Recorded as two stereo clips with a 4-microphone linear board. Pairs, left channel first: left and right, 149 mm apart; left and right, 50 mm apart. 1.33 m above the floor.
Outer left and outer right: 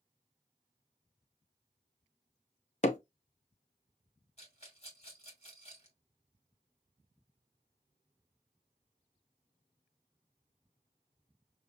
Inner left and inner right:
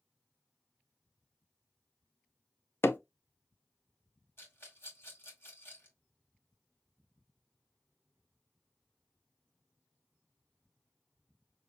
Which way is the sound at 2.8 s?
50° left (ahead or behind).